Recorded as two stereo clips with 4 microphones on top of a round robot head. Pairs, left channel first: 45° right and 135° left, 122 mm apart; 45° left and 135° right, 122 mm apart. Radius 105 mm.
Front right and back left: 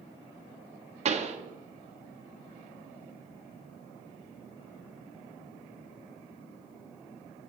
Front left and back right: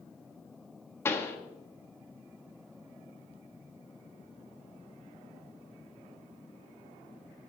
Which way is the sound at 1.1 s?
110° left.